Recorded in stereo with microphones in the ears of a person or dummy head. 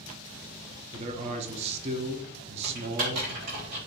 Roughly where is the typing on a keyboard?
Right.